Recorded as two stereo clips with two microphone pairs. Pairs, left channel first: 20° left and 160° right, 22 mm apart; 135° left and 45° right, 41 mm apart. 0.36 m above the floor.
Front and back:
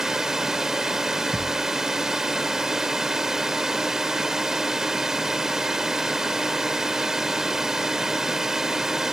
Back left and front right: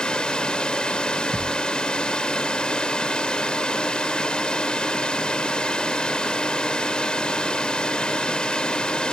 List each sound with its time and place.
0.0 s a drone: 165° left
1.3 s a thud: 55° right